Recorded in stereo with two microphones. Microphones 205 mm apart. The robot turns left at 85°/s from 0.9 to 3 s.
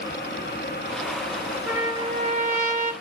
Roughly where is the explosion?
No explosion in this recording.